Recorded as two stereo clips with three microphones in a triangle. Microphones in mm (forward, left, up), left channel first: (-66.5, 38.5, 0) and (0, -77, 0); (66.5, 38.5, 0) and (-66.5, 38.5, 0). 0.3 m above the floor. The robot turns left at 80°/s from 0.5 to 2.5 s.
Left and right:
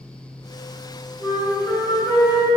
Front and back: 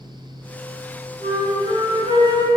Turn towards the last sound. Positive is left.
turn(degrees=150)